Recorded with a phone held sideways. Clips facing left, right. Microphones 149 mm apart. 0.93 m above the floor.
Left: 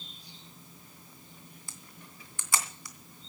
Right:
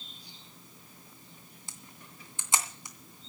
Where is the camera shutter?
20° right (ahead or behind), 2.5 m.